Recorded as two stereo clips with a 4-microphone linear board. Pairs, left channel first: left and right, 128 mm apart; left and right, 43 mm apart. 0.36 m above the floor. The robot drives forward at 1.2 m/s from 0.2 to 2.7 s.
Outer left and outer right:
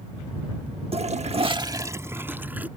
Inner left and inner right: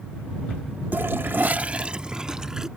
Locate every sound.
0.9 s a toilet flushing: 50° right (ahead or behind); by 2.7 s 15° right (ahead or behind)